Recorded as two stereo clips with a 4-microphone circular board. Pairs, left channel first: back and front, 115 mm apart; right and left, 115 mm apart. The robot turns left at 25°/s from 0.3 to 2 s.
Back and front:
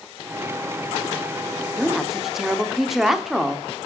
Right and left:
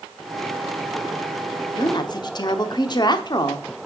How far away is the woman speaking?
About 0.9 m.